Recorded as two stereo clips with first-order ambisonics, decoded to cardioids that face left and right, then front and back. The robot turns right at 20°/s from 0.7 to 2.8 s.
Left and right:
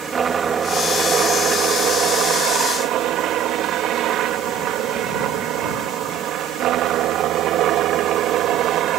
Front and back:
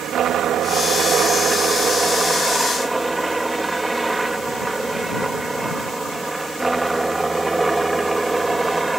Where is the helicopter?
145° right; by 9.0 s 105° right.